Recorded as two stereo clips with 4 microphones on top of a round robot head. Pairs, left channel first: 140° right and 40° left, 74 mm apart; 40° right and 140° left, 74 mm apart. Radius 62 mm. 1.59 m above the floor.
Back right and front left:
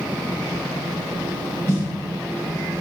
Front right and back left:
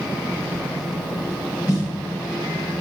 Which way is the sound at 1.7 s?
85° right.